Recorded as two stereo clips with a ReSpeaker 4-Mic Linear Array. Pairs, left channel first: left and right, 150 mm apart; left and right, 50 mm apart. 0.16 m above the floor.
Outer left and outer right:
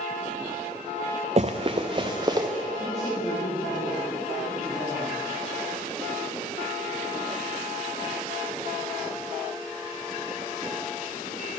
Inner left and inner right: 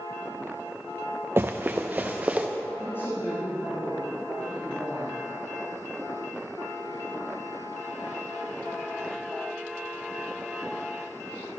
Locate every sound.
1.4 s running footsteps: 45° right (ahead or behind), 0.8 m; by 2.5 s 25° right (ahead or behind), 1.3 m
2.8 s a woman speaking: 55° left (ahead or behind), 4 m